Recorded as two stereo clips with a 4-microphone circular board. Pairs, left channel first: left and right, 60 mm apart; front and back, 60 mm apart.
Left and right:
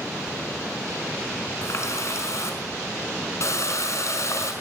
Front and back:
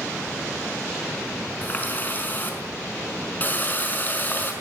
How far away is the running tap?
About 5.5 m.